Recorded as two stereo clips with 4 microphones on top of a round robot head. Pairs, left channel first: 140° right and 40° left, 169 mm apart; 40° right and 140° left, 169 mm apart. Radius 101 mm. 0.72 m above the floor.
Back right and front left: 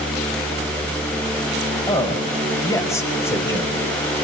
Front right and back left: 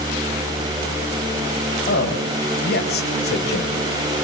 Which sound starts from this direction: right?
A man speaking, at 1.9 s.